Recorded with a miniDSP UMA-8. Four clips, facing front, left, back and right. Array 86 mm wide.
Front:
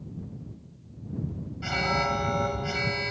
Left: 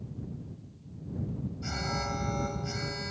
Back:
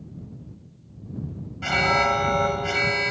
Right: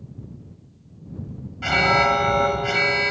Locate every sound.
1.6 s an alarm: 110° right